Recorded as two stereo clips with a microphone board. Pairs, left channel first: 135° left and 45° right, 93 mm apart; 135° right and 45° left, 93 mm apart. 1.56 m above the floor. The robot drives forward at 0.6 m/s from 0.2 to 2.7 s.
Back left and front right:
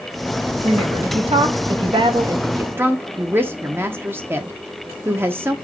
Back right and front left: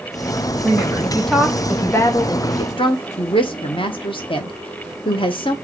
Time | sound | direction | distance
0.6 | a woman speaking | 35° right | 1.2 m